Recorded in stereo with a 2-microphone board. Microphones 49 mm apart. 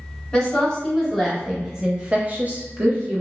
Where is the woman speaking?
10° left (ahead or behind), 1.3 m; by 3.2 s 40° right (ahead or behind), 0.8 m.